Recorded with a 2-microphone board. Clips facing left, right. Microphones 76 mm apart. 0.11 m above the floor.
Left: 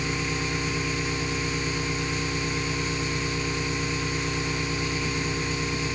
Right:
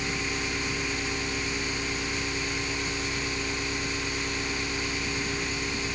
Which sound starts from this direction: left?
An engine running, at 0.0 s.